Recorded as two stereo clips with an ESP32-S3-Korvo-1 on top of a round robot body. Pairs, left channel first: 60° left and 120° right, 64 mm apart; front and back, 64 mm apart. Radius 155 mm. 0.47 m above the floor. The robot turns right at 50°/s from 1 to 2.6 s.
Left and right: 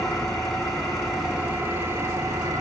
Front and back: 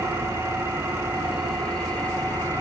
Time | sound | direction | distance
0.0 | an engine running | 145° left | 6 m